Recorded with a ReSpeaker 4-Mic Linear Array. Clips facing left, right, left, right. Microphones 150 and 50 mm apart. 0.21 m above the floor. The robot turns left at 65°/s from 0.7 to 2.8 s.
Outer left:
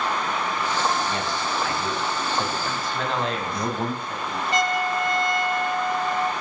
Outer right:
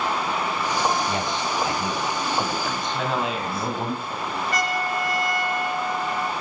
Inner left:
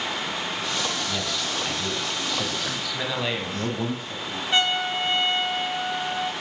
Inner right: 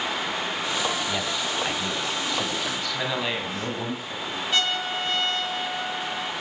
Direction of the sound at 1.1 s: 25° right (ahead or behind).